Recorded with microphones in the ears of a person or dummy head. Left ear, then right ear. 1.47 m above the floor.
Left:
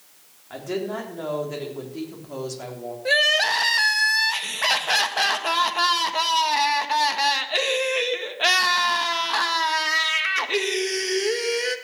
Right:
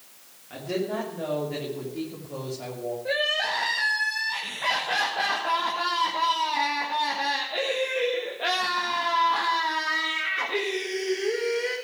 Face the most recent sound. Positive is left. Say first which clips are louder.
# left 7 dB
turn(degrees=70)  # may be behind; listen again after turning